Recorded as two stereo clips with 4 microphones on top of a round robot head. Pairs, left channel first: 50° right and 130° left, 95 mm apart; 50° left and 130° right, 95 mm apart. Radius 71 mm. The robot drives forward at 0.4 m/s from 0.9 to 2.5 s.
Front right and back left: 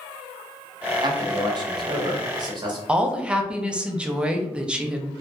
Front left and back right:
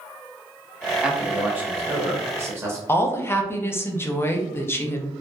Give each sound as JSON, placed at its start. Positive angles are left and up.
{"t": 1.0, "sound": "a man speaking", "azimuth_deg": 155, "distance_m": 0.8}
{"t": 2.9, "sound": "a woman speaking", "azimuth_deg": 65, "distance_m": 0.5}